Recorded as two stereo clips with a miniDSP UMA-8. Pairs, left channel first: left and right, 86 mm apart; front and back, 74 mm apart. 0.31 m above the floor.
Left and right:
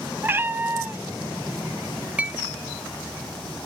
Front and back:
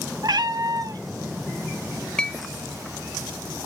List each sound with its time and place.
0.2 s a cat meowing: 155° right, 0.6 m
2.2 s a clink: 55° right, 0.6 m